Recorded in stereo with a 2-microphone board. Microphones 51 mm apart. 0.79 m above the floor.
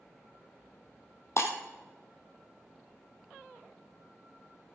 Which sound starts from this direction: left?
Breaking glass, at 1.4 s.